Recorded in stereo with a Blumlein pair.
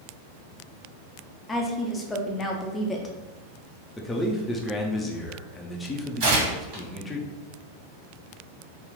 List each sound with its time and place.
1.5 s a woman speaking: 15° left, 0.7 m
4.0 s a man speaking: 10° left, 0.7 m
6.2 s tearing paper: 45° right, 1.7 m